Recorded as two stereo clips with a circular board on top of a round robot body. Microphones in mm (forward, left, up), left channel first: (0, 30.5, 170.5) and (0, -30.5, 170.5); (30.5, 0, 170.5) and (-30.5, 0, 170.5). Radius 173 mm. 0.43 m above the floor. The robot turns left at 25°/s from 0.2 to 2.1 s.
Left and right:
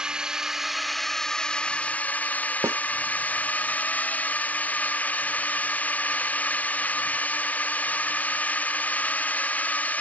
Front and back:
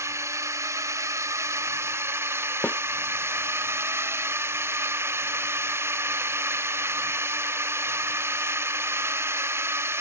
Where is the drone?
165° right; by 10.0 s 150° left.